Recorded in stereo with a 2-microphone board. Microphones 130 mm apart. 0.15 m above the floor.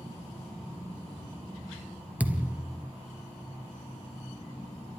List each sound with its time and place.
2.2 s a thud: 15° right (ahead or behind), 1.4 m